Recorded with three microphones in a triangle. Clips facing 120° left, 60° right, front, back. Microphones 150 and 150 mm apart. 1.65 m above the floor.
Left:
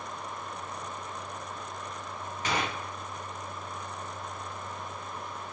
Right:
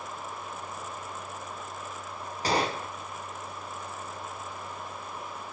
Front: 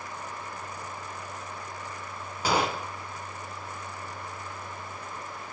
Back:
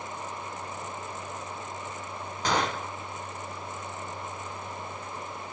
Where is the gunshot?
75° right, 0.6 m.